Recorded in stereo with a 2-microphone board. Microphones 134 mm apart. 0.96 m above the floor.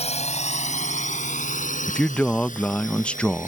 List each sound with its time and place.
0.0 s a drone: 55° left (ahead or behind); by 3.5 s 75° left (ahead or behind)
1.9 s a man speaking: 10° left (ahead or behind)